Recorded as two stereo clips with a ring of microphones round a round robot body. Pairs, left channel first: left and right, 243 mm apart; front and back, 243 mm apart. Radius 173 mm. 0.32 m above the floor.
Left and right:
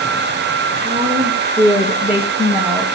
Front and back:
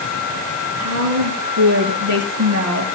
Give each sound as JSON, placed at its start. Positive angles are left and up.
{"t": 0.8, "sound": "a woman speaking", "azimuth_deg": 175, "distance_m": 4.5}